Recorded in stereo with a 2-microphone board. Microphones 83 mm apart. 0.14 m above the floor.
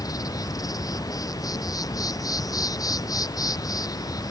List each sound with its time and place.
0.0 s an insect: 50° left (ahead or behind)